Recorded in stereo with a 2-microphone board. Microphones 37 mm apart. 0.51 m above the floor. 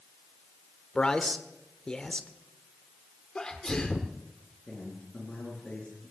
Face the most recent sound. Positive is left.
turn(degrees=35)  # may be behind; listen again after turning